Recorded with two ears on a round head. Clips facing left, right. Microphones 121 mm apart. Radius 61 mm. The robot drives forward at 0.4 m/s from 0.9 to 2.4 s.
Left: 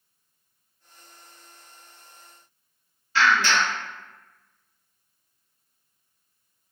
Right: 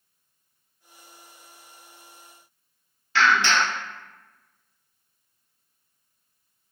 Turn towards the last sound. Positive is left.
turn(degrees=-55)  # may be behind; listen again after turning